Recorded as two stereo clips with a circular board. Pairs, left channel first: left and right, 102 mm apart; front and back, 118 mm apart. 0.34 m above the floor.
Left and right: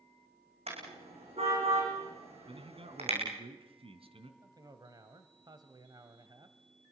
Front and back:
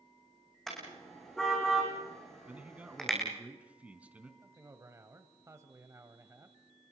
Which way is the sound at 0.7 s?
85° right.